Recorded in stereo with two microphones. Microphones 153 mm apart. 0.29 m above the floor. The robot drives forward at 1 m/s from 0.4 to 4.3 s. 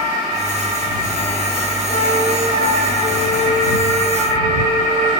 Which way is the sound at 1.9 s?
25° left (ahead or behind).